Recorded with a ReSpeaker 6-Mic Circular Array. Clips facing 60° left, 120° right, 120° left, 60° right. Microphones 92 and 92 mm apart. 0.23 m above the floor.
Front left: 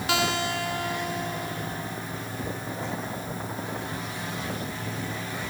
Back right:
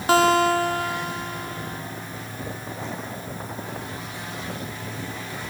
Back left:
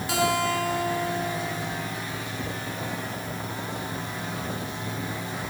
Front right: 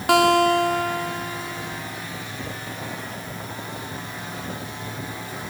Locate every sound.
0.1 s a guitar: 75° right, 1.1 m